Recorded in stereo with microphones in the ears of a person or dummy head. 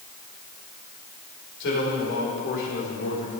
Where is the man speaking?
70° left (ahead or behind), 5.5 m; by 3.3 s 75° left (ahead or behind), 4 m.